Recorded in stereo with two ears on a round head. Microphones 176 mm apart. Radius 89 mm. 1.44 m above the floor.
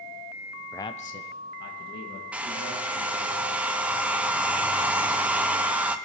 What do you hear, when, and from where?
0.7 s a man speaking: 5° left (ahead or behind), 0.5 m; by 3.3 s 75° left (ahead or behind), 3.5 m
2.3 s a hair dryer: 5° right (ahead or behind), 0.5 m